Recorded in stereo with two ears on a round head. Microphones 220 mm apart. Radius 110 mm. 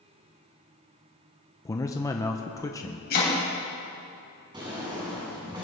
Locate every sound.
1.6 s a man speaking: 15° left (ahead or behind), 0.5 m
3.1 s chopping: 40° left (ahead or behind), 3 m
4.5 s a drawer: 20° right (ahead or behind), 3.5 m